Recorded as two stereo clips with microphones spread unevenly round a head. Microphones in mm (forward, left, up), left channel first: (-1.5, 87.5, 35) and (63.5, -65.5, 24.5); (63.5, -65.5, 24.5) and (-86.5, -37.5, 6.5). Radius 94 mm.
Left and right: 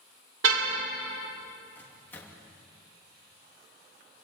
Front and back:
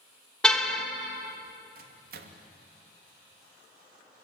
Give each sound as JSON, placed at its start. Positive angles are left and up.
{"t": 0.4, "sound": "a car horn", "azimuth_deg": -90, "distance_m": 2.5}
{"t": 1.8, "sound": "a microwave", "azimuth_deg": -165, "distance_m": 2.5}